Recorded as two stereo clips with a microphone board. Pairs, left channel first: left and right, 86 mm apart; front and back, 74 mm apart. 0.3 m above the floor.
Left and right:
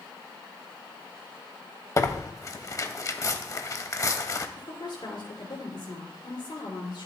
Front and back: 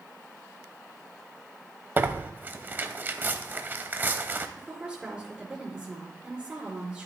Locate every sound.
2.0 s tearing paper: 125° left, 0.8 m
4.6 s a woman speaking: 100° left, 3.5 m